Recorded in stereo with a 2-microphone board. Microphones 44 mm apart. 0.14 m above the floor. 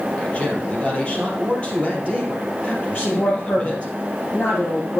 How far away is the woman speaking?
About 5.5 m.